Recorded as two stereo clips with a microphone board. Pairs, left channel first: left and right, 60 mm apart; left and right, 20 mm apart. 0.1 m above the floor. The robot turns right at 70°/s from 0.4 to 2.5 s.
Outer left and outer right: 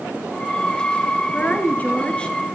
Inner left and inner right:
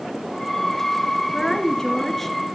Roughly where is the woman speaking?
Left.